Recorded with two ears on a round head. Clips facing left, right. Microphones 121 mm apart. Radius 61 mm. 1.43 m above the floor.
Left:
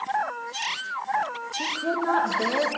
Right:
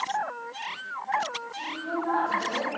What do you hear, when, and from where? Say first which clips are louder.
1.5 s a woman speaking: left 5 dB; 80° left, 1.4 m